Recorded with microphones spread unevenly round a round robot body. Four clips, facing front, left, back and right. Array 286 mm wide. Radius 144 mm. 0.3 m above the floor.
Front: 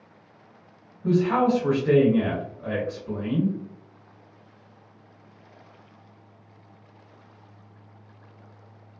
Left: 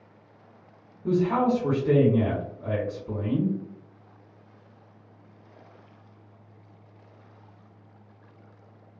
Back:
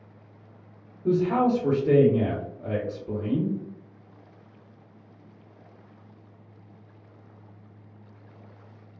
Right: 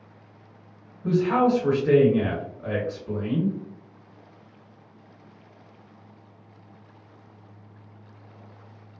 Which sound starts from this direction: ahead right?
A man speaking, at 1.0 s.